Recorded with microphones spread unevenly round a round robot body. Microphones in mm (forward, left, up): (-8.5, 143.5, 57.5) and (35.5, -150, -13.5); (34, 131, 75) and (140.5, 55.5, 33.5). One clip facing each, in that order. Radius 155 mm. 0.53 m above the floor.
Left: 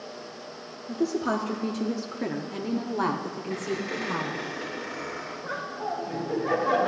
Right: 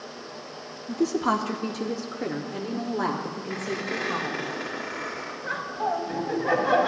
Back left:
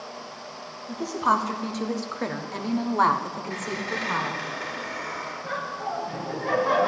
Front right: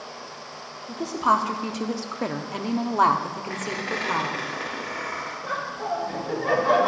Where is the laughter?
35° right, 3 m.